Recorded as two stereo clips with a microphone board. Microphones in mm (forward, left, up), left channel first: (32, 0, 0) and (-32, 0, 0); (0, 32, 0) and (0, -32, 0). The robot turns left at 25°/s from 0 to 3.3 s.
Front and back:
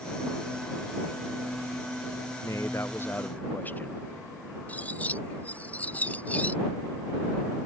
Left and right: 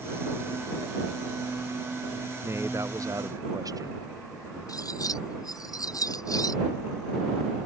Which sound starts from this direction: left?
Cutlery clinking, at 4.7 s.